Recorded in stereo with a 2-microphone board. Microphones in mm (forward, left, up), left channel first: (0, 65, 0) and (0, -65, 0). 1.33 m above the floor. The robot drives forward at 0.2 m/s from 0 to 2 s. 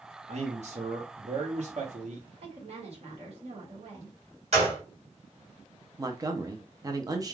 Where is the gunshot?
55° right (ahead or behind), 1.8 m.